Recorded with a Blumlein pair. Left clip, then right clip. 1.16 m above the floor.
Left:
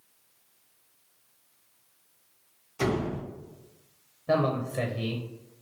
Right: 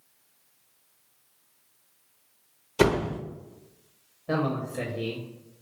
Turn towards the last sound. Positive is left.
turn(degrees=15)